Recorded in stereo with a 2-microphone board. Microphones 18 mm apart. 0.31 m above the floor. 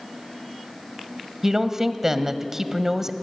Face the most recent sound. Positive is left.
turn(degrees=-25)  # may be behind; listen again after turning